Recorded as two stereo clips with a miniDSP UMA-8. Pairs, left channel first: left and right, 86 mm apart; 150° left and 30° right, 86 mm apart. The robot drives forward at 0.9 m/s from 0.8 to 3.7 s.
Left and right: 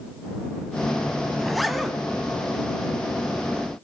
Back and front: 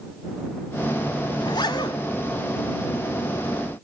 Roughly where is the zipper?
Behind.